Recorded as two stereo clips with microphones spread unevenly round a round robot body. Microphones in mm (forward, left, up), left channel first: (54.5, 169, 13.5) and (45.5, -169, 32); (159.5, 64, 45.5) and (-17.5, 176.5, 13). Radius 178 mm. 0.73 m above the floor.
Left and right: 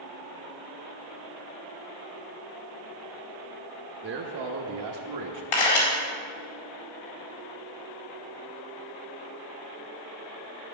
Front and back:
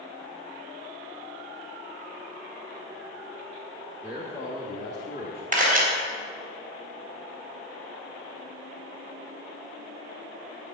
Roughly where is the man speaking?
Behind right.